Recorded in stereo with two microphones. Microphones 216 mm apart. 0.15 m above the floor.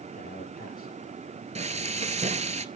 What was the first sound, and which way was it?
A man speaking, 45° left (ahead or behind).